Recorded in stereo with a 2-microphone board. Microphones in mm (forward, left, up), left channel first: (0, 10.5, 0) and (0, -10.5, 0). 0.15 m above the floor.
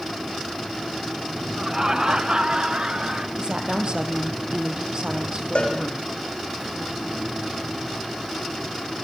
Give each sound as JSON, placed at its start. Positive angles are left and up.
{"t": 1.6, "sound": "laughter", "side_deg": -30, "distance_m": 1.3}
{"t": 3.4, "sound": "a woman speaking", "side_deg": -40, "distance_m": 4.5}
{"t": 5.5, "sound": "a cowbell", "side_deg": 65, "distance_m": 9.0}